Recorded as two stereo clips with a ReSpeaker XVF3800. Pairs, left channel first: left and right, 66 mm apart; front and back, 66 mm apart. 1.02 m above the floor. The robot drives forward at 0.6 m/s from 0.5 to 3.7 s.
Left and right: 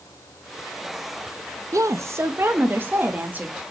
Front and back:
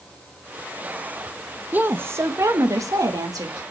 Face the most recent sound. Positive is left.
turn(degrees=-155)